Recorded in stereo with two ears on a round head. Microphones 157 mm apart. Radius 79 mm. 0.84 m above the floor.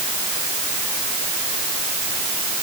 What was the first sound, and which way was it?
Only background noise.